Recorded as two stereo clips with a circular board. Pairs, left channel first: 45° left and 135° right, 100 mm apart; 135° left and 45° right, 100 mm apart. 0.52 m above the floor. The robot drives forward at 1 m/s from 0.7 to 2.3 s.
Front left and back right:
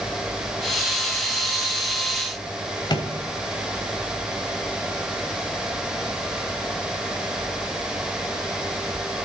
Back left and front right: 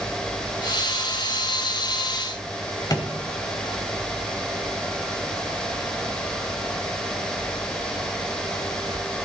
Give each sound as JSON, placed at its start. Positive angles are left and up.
{"t": 2.9, "sound": "a drawer", "azimuth_deg": 85, "distance_m": 1.3}